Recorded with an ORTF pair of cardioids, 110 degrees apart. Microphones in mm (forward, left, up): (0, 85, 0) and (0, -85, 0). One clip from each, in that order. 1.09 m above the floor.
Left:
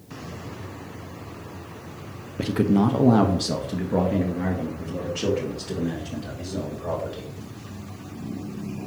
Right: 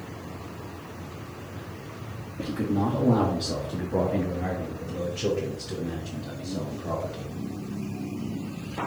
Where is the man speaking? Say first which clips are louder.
Left 5 dB; 45° left, 0.7 m; by 7.3 s 80° left, 3 m.